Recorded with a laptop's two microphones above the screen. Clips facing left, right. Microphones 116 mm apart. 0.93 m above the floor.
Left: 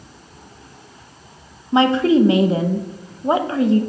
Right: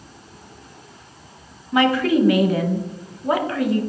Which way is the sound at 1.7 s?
25° left (ahead or behind).